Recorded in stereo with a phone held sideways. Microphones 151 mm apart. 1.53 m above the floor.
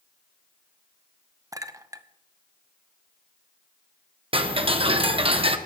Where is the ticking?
40° right (ahead or behind), 1.0 m.